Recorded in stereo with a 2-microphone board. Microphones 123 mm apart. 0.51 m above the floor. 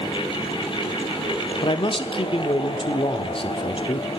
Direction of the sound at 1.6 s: 45° left (ahead or behind).